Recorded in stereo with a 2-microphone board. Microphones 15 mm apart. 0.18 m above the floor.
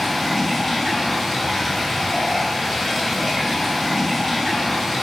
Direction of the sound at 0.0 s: 10° left (ahead or behind).